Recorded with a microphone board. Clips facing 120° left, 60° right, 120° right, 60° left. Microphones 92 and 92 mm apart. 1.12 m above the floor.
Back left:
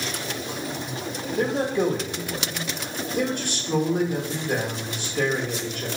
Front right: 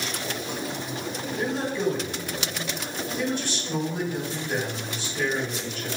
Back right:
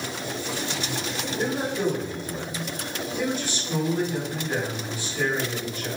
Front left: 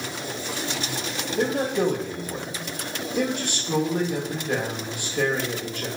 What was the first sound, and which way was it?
A man speaking, 85° left.